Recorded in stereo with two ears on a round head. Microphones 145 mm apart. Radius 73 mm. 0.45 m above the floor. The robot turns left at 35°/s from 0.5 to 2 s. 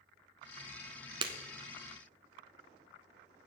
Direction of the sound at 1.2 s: 30° right (ahead or behind).